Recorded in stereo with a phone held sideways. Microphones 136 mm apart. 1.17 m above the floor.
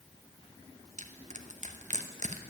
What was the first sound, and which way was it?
Crushing, 60° right (ahead or behind).